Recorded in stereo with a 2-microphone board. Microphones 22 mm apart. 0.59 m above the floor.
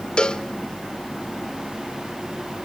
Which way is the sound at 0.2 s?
40° left (ahead or behind).